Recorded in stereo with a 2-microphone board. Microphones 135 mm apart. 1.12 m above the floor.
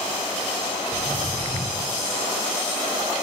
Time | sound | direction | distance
0.9 | footsteps | 60° left (ahead or behind) | 4 m